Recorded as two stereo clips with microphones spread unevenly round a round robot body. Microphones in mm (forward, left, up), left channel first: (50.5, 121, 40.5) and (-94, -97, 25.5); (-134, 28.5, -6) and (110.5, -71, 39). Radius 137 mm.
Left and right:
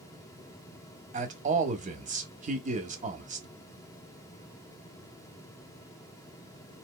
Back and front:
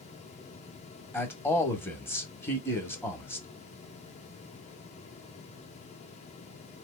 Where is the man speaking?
145° right, 1.3 m.